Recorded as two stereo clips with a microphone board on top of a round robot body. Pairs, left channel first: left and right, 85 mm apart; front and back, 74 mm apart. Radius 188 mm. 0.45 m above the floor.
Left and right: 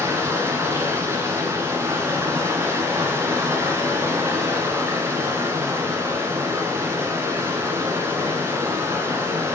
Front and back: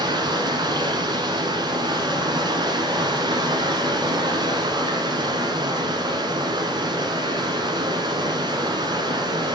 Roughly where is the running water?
Behind right.